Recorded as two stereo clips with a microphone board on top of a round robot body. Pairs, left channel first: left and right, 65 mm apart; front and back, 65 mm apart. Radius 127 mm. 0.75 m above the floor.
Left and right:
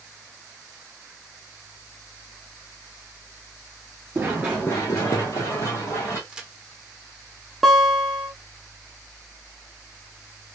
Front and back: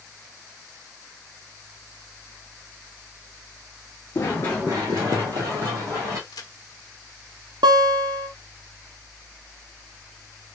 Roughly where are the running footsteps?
Ahead right.